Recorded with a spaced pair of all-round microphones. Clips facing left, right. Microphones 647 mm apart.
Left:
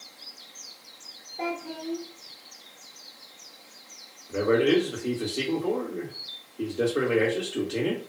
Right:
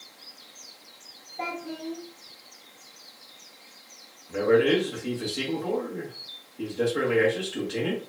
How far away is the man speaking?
About 1.3 m.